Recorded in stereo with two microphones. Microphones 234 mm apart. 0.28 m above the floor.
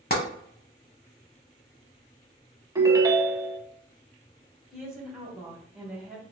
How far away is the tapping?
About 1.0 m.